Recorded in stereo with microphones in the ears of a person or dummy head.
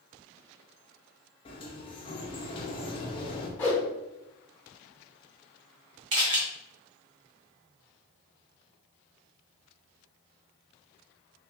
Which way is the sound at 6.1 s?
20° right (ahead or behind).